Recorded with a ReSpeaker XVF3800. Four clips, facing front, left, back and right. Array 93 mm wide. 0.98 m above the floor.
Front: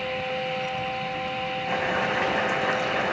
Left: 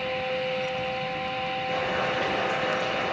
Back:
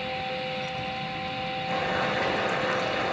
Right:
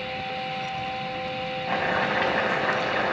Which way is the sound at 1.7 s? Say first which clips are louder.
Right 4 dB, front 1 dB; 65° right.